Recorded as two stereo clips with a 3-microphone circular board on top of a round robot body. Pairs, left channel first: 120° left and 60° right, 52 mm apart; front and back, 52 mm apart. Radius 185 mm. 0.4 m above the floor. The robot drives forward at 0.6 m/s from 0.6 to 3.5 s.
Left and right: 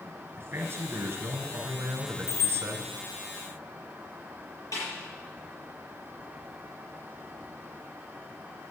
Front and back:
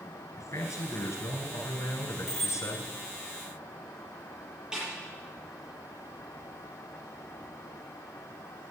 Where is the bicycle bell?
85° left, 7 m.